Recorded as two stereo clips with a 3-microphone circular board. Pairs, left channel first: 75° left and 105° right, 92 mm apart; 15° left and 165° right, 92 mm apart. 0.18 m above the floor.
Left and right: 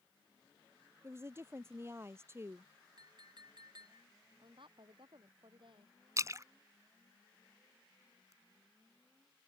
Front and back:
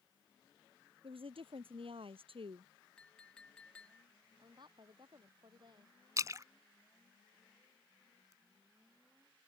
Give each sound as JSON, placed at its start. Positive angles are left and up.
{"t": 1.0, "sound": "a woman speaking", "azimuth_deg": -165}
{"t": 3.0, "sound": "a clink", "azimuth_deg": -65}
{"t": 4.4, "sound": "a woman speaking", "azimuth_deg": -130}
{"t": 6.2, "sound": "a splash", "azimuth_deg": -135}